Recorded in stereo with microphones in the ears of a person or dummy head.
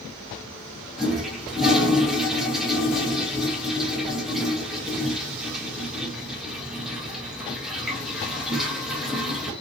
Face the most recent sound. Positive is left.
turn(degrees=0)  # may be behind; listen again after turning